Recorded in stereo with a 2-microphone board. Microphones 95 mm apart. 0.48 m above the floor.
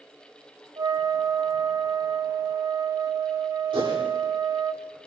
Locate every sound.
0.8 s a flute: 40° right (ahead or behind), 0.8 m
3.7 s a whoosh: 60° right (ahead or behind), 9.5 m